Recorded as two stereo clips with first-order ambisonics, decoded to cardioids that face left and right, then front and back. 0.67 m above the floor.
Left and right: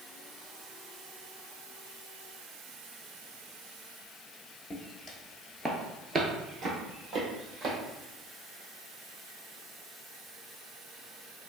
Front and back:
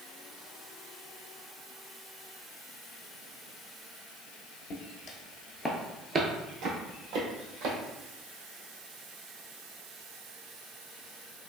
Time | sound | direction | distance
4.7 | footsteps | 20° left | 0.9 m